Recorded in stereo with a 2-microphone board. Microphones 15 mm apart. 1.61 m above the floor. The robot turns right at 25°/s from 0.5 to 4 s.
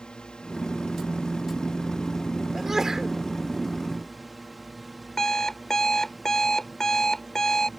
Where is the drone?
90° left; by 7.8 s 175° left.